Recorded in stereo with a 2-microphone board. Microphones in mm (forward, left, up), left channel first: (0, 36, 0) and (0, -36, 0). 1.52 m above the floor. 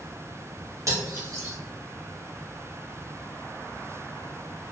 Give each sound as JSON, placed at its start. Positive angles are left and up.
{"t": 0.9, "sound": "cutlery clinking", "side_deg": -45, "distance_m": 1.1}